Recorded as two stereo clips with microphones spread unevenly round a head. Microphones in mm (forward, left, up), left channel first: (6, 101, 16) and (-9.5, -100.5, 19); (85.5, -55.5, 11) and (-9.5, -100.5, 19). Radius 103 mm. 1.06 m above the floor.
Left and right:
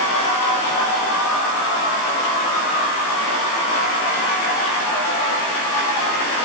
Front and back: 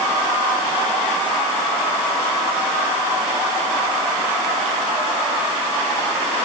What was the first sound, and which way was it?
Only background noise.